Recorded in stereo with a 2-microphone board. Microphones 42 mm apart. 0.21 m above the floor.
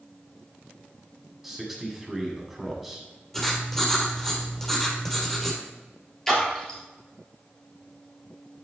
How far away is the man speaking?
About 1.8 m.